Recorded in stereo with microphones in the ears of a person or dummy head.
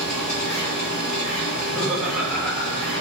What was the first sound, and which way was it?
A machine running, 45° left (ahead or behind).